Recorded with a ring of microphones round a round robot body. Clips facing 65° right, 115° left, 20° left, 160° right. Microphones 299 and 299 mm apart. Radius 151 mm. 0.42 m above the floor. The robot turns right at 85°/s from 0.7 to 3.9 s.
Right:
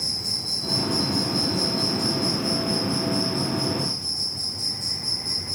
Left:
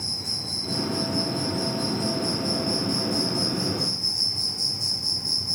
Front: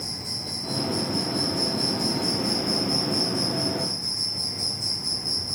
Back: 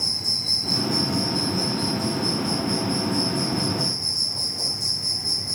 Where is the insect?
125° right, 2.5 m; by 5.6 s 145° left, 2.5 m.